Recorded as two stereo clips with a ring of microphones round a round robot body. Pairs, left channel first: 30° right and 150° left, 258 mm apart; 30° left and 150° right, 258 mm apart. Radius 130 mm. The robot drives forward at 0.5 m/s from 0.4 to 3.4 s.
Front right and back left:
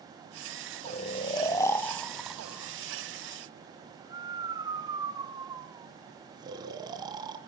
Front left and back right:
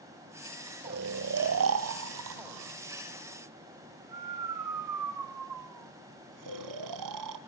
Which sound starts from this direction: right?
Snoring, at 0.8 s.